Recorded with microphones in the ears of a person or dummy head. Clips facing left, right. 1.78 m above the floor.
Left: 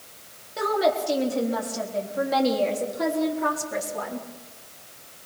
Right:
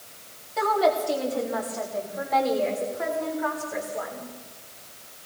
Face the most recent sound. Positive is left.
turn(degrees=80)